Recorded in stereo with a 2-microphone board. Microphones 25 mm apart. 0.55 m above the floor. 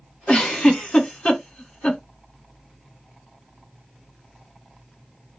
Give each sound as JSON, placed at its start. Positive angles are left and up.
{"t": 0.3, "sound": "a giggle", "side_deg": 45, "distance_m": 1.3}